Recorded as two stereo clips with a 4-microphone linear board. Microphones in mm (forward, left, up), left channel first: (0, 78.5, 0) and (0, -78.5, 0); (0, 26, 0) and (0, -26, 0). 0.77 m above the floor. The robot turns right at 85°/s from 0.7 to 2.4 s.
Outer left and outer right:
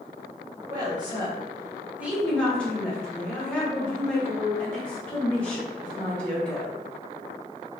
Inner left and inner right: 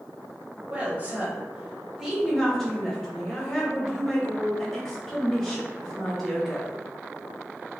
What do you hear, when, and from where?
0.7 s a woman speaking: 20° right (ahead or behind), 1.0 m; by 6.8 s 5° left (ahead or behind), 1.0 m